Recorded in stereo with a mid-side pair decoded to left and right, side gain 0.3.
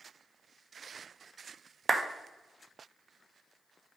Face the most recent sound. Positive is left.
turn(degrees=-25)